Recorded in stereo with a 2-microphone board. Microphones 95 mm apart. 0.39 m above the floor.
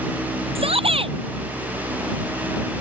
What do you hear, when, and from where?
0.6 s a shout: 85° right